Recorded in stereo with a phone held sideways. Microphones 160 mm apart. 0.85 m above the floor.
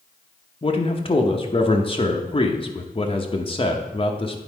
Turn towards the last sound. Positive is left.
turn(degrees=35)  # may be behind; listen again after turning